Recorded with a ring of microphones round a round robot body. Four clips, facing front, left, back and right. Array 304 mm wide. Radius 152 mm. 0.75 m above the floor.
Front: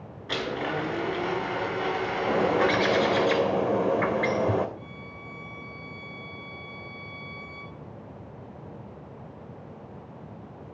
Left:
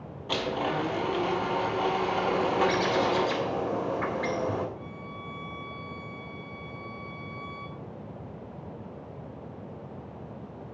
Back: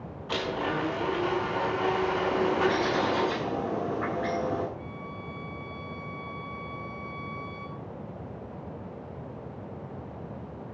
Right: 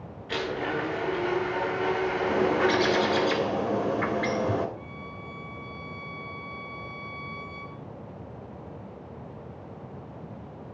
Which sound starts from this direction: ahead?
A bird, at 2.3 s.